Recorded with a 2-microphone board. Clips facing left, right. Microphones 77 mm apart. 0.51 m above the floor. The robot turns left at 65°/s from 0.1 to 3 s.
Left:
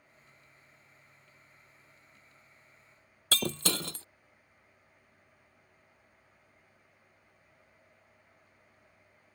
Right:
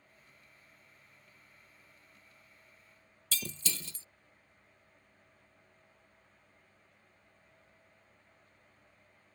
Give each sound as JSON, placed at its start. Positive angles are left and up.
{"t": 3.3, "sound": "breaking glass", "side_deg": 65}